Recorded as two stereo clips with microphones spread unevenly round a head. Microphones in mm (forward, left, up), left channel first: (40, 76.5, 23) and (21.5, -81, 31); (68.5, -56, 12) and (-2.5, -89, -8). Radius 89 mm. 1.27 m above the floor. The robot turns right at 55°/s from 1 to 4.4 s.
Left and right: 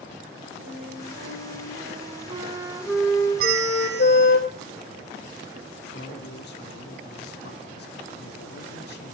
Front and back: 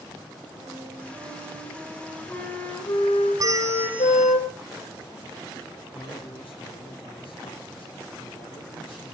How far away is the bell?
About 1.4 m.